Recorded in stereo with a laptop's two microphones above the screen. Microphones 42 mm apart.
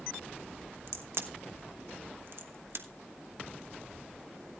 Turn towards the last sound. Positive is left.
turn(degrees=-65)  # may be behind; listen again after turning